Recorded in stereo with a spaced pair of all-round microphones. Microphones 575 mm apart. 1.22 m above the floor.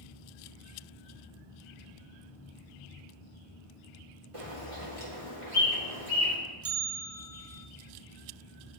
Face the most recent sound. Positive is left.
turn(degrees=-25)  # may be behind; listen again after turning